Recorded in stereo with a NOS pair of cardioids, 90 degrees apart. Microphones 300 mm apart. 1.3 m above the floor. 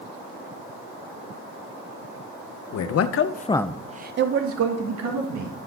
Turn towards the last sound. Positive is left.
turn(degrees=-65)